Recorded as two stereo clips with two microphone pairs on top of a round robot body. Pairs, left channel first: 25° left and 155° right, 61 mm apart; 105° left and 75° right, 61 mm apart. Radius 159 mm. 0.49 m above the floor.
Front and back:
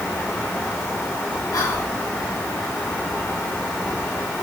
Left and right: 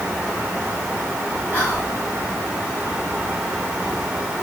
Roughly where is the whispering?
Ahead left.